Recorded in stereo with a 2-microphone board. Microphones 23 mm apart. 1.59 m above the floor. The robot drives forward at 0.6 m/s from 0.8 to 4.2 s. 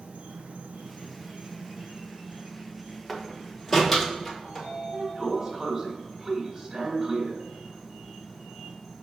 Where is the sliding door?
35° right (ahead or behind), 1.7 m.